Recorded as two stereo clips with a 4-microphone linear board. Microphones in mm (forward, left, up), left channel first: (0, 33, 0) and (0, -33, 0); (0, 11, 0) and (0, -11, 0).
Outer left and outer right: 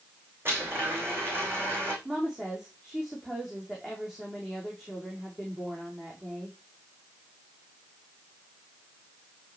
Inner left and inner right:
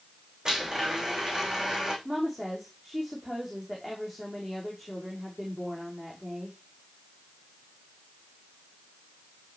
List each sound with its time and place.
0.5 s a blender: 35° right (ahead or behind), 6 m
2.0 s a woman speaking: 10° right (ahead or behind), 6.5 m